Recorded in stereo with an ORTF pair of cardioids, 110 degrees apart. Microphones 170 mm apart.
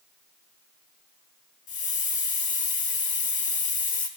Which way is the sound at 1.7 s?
45° left.